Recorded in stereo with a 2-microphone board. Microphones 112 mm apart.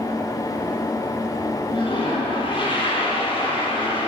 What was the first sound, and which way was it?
A toilet flushing, 45° left (ahead or behind).